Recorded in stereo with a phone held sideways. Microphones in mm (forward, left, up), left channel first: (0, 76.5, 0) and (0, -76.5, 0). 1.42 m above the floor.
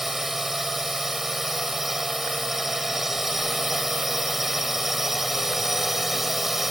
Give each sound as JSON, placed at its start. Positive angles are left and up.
{"t": 0.0, "sound": "a drone", "side_deg": 0}